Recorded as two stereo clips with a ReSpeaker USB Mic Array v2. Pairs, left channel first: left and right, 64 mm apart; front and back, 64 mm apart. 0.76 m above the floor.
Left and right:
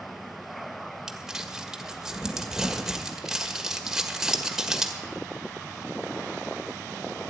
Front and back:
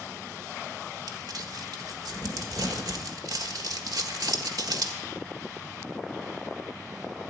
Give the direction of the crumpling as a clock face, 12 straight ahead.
6 o'clock.